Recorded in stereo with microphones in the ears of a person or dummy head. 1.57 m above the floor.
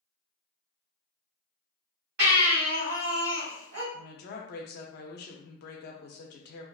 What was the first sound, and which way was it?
A baby crying, 55° right (ahead or behind).